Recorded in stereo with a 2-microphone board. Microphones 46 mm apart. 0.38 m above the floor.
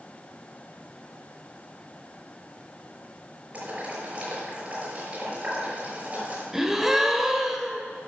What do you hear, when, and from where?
3.5 s boiling: 30° right (ahead or behind), 6.5 m
6.5 s a gasp: 5° right (ahead or behind), 1.3 m